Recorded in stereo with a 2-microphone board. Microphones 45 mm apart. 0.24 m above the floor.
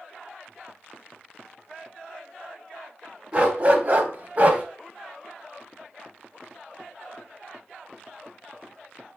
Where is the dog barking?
25° right (ahead or behind), 0.6 m; by 4.6 s 30° right (ahead or behind), 0.6 m.